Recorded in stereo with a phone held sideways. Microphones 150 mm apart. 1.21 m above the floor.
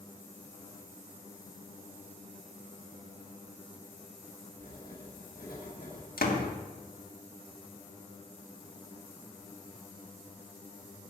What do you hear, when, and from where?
4.6 s writing: 85° left, 4 m
6.2 s a door slam: 85° left, 1.6 m